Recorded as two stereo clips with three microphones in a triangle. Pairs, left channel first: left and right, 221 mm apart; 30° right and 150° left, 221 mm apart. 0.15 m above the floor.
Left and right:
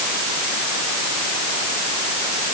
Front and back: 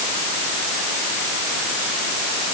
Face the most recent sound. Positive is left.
No sound to turn to.